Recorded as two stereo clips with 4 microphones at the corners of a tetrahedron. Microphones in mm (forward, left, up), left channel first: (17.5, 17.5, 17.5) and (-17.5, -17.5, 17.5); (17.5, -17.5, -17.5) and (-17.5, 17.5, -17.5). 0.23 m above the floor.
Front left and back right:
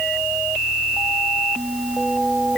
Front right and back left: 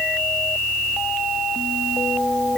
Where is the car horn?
No car horn in this recording.